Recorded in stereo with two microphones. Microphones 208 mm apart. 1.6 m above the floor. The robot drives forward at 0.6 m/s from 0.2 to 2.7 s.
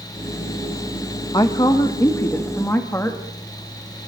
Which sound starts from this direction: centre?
A woman speaking, at 1.3 s.